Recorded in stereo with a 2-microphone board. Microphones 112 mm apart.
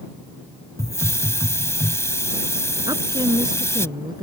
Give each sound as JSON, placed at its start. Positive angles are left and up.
{"t": 0.8, "sound": "a hiss", "side_deg": 25}
{"t": 2.9, "sound": "a woman speaking", "side_deg": -35}